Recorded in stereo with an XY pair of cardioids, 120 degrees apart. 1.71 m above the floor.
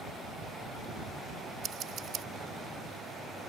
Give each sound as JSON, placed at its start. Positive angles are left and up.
{"t": 1.6, "sound": "scissors", "azimuth_deg": -60}